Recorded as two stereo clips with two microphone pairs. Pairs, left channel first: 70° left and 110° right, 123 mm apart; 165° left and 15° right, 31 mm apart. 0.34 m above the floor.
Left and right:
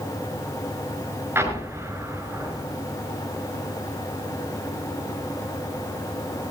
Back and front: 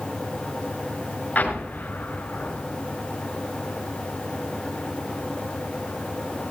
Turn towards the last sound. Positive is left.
turn(degrees=-175)